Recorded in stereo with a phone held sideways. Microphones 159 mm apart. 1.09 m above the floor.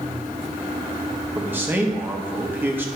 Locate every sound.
1.4 s a man speaking: 15° right (ahead or behind), 1.4 m